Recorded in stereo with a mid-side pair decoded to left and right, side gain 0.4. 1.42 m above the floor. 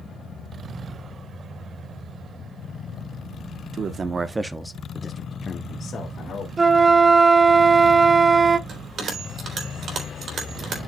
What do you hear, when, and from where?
3.7 s a man speaking: 60° right, 1.3 m; by 6.5 s 60° left, 2.5 m
6.6 s a flute: 35° right, 0.5 m
8.7 s a bell: 65° right, 3.5 m